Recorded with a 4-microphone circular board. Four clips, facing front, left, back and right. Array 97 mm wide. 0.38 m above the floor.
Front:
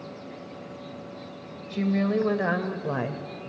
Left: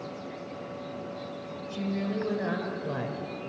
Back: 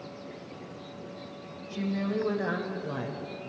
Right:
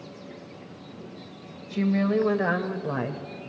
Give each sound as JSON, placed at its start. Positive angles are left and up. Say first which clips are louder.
{"t": 1.7, "sound": "a woman speaking", "louder": "right 8 dB, front 6 dB", "azimuth_deg": -55, "distance_m": 2.0}